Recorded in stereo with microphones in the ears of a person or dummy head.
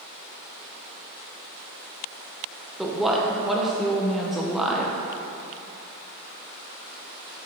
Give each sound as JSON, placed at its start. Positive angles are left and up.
{"t": 2.8, "sound": "a woman speaking", "side_deg": 0, "distance_m": 0.9}